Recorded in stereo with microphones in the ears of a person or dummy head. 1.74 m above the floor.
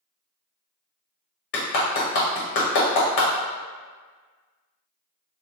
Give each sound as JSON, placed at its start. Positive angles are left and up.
{"t": 1.5, "sound": "a clap", "side_deg": 45, "distance_m": 0.7}